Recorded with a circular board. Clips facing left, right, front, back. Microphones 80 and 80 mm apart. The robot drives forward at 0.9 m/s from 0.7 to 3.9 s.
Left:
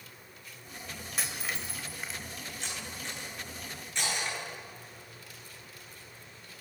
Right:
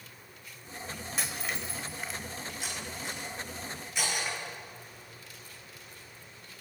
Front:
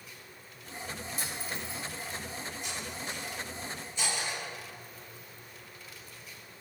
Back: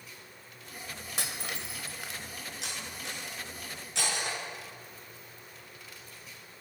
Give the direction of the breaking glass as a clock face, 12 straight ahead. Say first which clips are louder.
Even, back 4 dB; 6 o'clock.